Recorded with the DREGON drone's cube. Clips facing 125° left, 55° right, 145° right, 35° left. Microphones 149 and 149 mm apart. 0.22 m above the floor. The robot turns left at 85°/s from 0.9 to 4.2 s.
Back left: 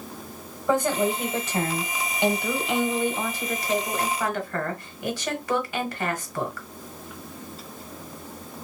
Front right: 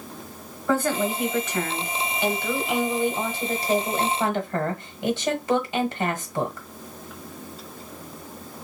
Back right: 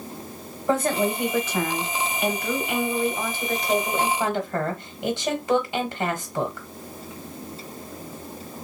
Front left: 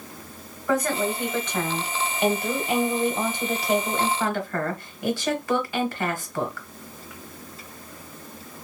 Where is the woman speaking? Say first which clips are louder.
Back left 1 dB, back right 2 dB; 175° right, 1.2 m; by 6.7 s 95° right, 1.2 m.